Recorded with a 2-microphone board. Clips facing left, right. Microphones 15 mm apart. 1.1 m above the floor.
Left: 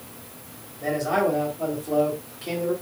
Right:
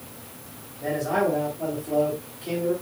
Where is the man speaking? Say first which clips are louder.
Left 1 dB; 30° left (ahead or behind), 3.5 m.